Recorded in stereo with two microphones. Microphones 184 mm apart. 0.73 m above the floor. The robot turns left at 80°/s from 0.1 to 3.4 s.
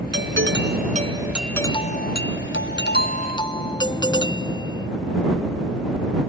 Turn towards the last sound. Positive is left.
turn(degrees=20)